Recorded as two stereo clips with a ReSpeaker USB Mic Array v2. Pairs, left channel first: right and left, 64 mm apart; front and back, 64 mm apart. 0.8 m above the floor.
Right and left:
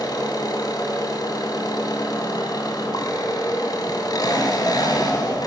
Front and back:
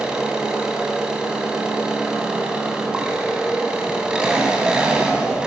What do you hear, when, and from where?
0.0 s an engine running: 100° right, 3 m